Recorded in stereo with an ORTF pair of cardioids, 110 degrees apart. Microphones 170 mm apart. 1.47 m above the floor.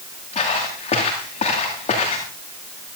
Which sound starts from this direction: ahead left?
Footsteps, at 0.3 s.